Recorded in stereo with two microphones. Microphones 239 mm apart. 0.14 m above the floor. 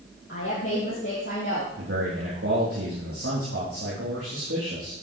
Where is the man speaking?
70° right (ahead or behind), 4.5 m.